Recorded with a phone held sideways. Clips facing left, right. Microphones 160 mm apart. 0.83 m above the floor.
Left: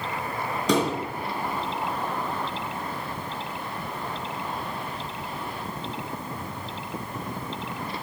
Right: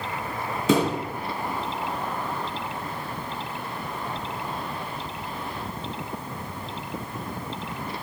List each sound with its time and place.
0.7 s a thud: 5° right (ahead or behind), 3.5 m